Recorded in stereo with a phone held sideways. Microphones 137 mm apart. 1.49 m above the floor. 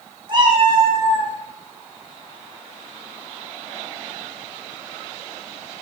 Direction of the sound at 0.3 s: 35° right (ahead or behind).